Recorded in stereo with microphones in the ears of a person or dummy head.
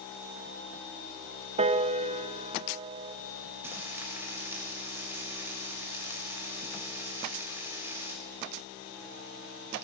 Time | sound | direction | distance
1.6 | a piano | 30° right (ahead or behind) | 1.0 m
3.6 | frying | 5° right (ahead or behind) | 7 m